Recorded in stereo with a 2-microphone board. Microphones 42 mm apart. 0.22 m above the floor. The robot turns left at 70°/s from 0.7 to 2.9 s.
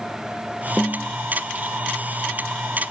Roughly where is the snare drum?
Left.